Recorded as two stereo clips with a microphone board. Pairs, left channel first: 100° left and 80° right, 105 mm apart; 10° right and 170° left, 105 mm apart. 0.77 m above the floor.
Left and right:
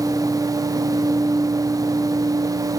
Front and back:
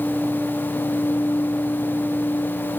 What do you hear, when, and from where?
Only background noise.